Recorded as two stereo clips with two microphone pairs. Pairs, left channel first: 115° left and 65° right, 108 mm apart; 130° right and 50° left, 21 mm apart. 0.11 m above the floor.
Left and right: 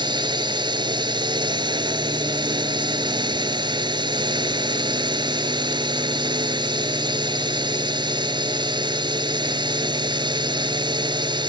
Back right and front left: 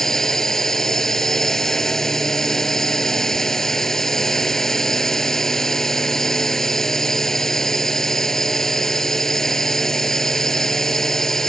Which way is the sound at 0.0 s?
75° right.